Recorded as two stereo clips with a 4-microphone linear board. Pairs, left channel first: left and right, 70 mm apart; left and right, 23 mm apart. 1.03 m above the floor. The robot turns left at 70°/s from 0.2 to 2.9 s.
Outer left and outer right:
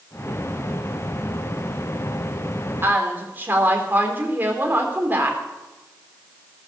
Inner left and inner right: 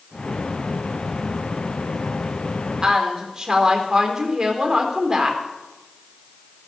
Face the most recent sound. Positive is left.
turn(degrees=-25)  # may be behind; listen again after turning